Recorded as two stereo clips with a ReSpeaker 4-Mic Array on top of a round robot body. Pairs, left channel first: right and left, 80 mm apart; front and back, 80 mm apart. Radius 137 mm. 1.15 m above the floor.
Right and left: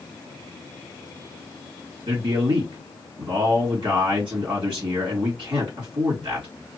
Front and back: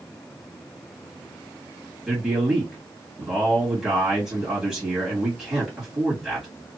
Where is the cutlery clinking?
I don't hear cutlery clinking.